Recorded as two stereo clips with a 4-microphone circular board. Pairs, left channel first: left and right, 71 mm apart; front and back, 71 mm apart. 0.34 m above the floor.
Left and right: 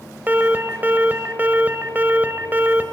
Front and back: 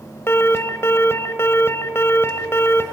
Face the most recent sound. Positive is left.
turn(degrees=-35)